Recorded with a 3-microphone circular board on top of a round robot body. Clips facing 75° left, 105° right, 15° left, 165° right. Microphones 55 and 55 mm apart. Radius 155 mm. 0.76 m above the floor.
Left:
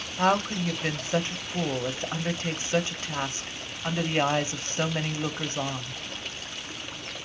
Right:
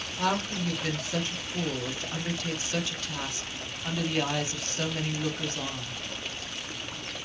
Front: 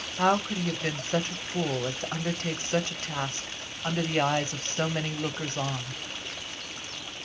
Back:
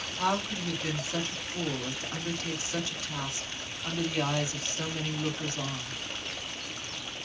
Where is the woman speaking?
30° left, 1.1 m.